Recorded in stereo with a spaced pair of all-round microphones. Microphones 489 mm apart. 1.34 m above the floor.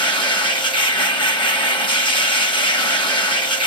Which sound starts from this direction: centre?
A machine running, at 0.0 s.